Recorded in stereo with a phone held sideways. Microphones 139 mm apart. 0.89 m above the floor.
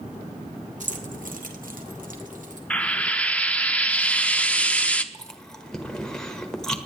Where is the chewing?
5° left (ahead or behind), 1.2 m.